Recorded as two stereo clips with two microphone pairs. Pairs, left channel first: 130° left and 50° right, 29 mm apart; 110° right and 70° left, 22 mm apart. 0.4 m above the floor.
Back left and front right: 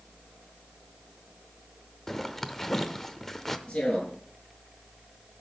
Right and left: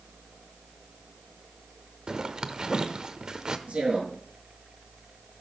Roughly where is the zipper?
Ahead left.